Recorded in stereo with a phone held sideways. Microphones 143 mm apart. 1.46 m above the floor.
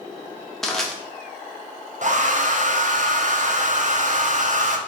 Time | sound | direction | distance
0.6 | crushing | 5° left (ahead or behind) | 0.9 m
2.0 | a hair dryer | 60° right (ahead or behind) | 0.6 m